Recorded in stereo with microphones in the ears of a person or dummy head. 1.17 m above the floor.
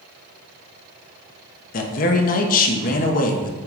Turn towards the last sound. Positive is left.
turn(degrees=50)  # may be behind; listen again after turning